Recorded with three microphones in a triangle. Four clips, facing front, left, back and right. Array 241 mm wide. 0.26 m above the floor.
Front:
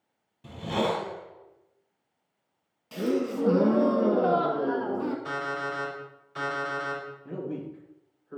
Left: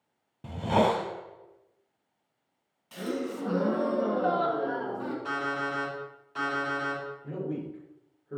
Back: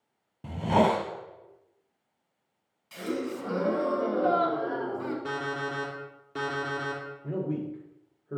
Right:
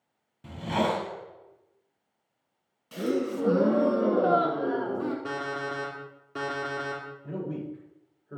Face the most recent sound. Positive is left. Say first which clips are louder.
# right 1 dB, back 5 dB
turn(degrees=175)